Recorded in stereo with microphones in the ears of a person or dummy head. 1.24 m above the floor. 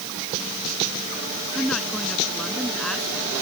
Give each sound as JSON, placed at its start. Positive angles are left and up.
{"t": 1.6, "sound": "a woman speaking", "side_deg": 0}